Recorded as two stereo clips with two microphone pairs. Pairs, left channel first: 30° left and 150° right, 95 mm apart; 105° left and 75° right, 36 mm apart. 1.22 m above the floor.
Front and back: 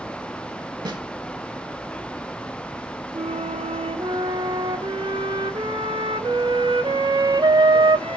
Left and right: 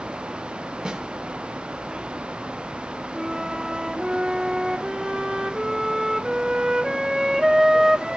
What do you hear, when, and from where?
0.8 s a snare drum: 140° right, 1.2 m
3.1 s a flute: 150° right, 1.1 m